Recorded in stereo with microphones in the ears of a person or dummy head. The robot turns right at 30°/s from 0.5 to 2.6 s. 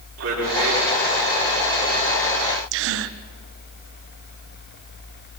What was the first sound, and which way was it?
A man speaking, 85° right.